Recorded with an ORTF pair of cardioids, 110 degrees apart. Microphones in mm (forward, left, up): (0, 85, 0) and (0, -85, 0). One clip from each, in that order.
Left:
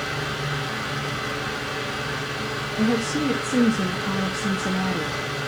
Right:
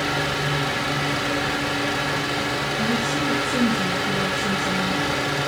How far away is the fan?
About 2.5 m.